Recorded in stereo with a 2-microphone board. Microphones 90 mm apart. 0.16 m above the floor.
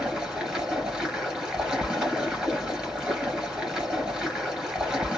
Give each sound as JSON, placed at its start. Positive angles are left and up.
{"t": 0.0, "sound": "running water", "side_deg": -10, "distance_m": 1.7}